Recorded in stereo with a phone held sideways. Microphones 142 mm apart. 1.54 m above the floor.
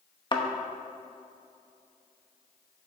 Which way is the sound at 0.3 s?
30° left (ahead or behind).